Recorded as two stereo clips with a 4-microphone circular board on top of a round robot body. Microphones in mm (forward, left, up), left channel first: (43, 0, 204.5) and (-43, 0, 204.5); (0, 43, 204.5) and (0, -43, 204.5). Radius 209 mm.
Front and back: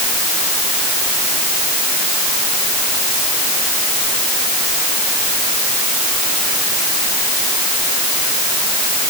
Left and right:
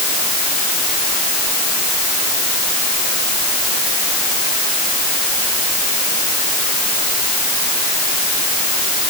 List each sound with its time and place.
Only background noise.